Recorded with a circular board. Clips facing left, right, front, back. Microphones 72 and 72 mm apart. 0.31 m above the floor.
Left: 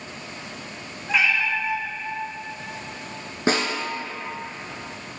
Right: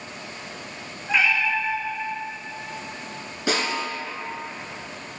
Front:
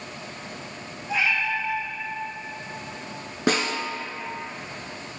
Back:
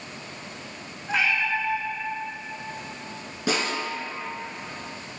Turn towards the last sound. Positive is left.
turn(degrees=35)